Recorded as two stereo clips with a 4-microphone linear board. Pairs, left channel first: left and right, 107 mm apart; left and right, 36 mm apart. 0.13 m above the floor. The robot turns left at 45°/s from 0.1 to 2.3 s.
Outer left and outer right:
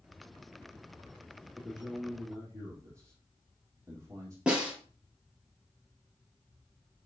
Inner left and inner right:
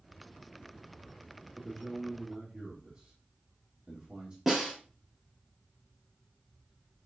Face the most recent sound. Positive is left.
turn(degrees=-10)  # may be behind; listen again after turning